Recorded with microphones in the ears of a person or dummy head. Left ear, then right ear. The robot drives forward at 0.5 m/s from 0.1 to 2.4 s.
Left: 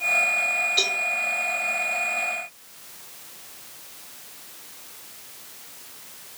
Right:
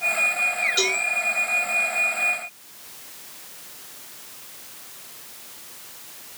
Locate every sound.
0.8 s a cowbell: 25° right (ahead or behind), 3 m; by 1.0 s 20° right (ahead or behind), 3 m